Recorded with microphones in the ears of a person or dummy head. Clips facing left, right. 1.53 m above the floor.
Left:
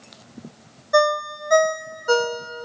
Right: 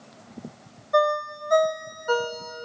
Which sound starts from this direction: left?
A ringtone, at 0.9 s.